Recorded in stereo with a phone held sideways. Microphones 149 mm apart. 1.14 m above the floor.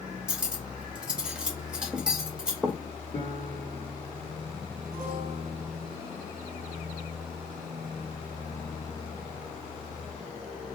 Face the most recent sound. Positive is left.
turn(degrees=65)  # may be behind; listen again after turning